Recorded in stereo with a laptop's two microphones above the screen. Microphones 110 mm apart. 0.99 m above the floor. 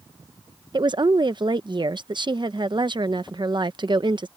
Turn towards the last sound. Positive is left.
turn(degrees=-45)  # may be behind; listen again after turning